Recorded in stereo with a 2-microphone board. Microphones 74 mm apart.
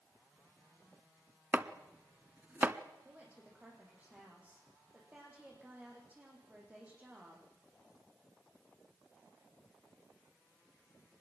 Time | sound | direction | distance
1.5 | chopping | 25° right (ahead or behind) | 0.8 m
3.0 | a woman speaking | 20° right (ahead or behind) | 8 m